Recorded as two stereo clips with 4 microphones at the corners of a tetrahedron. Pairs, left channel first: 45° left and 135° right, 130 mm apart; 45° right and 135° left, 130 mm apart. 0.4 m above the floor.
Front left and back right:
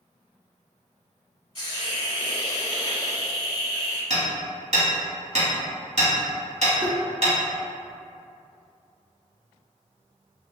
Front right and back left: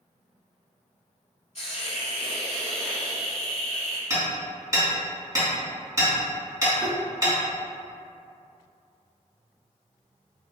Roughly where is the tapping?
Behind.